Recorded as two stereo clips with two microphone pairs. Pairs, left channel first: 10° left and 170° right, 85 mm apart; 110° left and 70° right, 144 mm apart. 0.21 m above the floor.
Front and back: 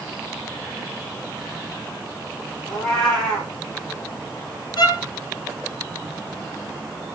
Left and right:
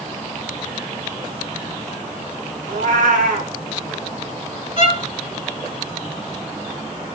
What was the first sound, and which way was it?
A cat meowing, 75° right.